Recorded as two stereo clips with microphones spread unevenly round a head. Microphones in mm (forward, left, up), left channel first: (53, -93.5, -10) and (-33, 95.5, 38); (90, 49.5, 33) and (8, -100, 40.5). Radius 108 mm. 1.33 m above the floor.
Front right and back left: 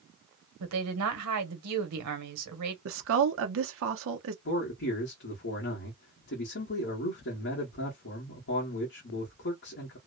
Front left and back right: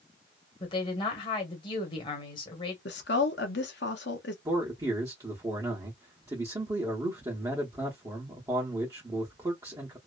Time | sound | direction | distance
0.6 | a woman speaking | 125° left | 1.1 m
2.9 | a woman speaking | 105° left | 0.7 m
4.5 | a man speaking | 50° right | 1.1 m